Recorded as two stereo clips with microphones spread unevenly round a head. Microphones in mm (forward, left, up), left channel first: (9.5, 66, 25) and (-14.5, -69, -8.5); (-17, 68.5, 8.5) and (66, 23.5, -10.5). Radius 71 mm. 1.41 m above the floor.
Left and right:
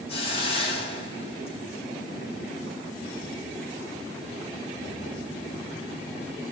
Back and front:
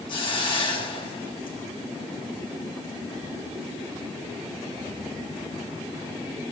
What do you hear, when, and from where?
0.1 s a hiss: 125° left, 5 m